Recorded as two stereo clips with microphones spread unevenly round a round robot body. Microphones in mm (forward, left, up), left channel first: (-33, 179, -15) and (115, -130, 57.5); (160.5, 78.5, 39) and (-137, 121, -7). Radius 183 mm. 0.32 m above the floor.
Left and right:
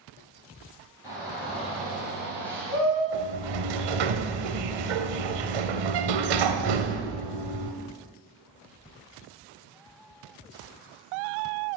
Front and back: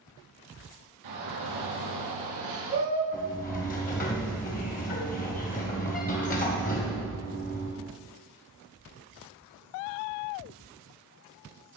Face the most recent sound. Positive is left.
turn(degrees=-80)